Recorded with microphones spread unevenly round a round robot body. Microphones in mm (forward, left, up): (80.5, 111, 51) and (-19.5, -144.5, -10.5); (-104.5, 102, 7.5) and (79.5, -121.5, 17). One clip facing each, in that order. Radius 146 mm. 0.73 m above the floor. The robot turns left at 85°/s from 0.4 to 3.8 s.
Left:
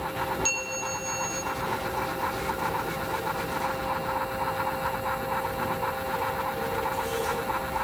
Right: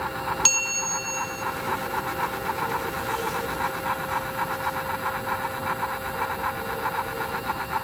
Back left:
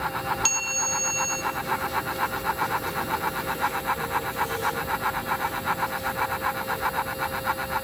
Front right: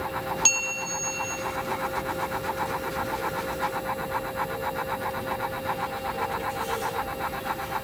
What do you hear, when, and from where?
0.5 s a bell: 135° right, 2.5 m; by 1.4 s 140° left, 2.5 m